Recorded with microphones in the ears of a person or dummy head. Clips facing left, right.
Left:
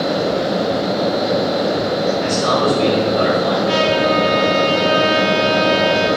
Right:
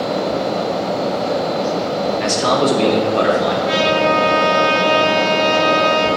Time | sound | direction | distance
2.2 | a man speaking | 80° right | 3 m
3.6 | a trumpet | 25° right (ahead or behind) | 6.5 m